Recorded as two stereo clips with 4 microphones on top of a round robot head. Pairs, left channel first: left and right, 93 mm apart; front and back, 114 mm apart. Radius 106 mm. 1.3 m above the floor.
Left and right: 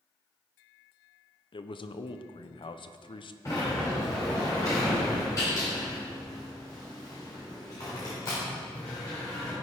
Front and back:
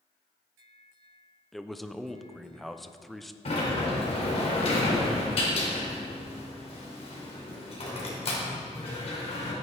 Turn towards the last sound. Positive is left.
turn(degrees=25)